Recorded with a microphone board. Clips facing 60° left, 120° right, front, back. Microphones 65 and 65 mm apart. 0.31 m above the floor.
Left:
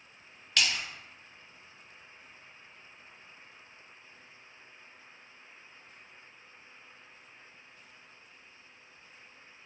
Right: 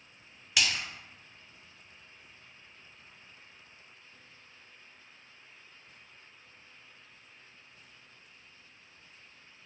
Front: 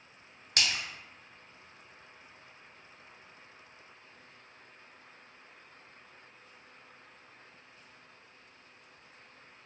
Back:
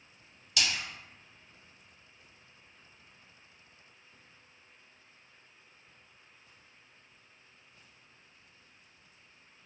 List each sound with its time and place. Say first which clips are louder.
0.6 s a splash: even, even; 35° right, 1.1 m